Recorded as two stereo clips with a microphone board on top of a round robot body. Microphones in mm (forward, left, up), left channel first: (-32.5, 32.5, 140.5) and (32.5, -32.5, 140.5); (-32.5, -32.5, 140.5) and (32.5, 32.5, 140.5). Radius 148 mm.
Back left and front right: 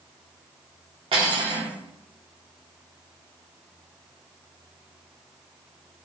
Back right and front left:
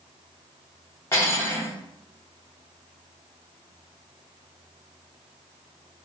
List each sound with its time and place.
1.1 s cutlery clinking: 70° right, 0.7 m